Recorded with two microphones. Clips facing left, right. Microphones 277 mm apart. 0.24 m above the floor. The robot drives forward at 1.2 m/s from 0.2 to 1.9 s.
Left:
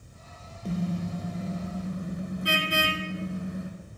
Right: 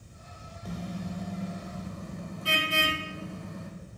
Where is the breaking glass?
I don't hear breaking glass.